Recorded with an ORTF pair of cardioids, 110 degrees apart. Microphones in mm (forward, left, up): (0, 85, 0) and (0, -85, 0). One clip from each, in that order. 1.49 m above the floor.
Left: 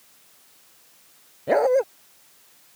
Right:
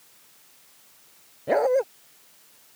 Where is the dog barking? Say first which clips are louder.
Left 2 dB; 15° left.